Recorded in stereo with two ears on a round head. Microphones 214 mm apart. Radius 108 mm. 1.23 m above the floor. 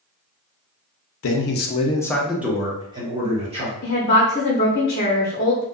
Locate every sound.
1.2 s a man speaking: 60° left (ahead or behind), 0.5 m; by 3.7 s 25° right (ahead or behind), 1.4 m
3.8 s a woman speaking: 35° left (ahead or behind), 0.7 m